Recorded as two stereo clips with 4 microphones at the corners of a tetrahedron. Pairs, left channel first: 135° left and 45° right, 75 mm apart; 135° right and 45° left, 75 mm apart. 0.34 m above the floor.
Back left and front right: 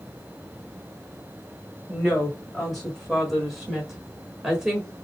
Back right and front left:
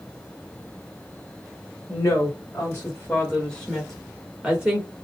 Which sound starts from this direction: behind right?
A woman speaking, at 1.9 s.